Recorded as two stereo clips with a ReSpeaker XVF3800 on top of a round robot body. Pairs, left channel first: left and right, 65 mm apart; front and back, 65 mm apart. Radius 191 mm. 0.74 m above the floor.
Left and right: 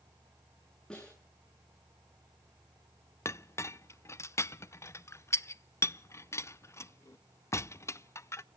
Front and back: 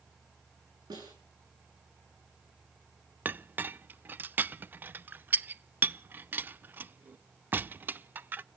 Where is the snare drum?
170° left, 8.5 m.